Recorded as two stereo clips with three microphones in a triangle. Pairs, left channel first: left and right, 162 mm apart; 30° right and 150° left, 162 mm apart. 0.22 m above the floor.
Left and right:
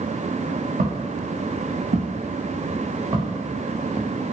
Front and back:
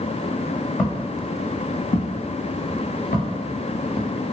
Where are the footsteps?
110° right, 0.9 m; by 4.1 s 10° right, 1.5 m.